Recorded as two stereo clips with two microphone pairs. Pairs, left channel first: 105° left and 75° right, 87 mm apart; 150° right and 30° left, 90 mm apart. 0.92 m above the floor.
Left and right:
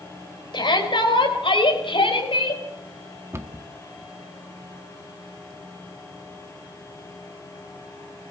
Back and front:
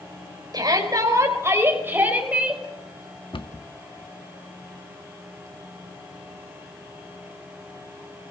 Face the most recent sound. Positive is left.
turn(degrees=-135)